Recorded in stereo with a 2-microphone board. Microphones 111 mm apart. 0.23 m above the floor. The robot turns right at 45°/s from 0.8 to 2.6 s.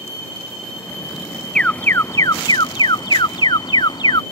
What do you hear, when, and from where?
1.6 s an alarm: 10° left; by 4.2 s 55° left